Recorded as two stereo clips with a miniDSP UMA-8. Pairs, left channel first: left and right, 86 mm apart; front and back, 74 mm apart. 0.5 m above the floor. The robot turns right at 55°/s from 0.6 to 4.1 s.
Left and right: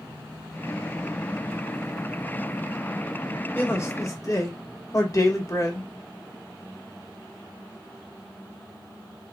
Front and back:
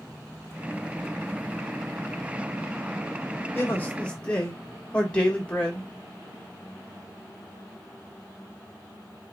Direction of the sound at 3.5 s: 35° left.